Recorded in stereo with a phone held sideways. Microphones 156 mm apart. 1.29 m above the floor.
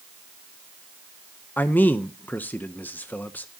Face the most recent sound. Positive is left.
turn(degrees=10)  # may be behind; listen again after turning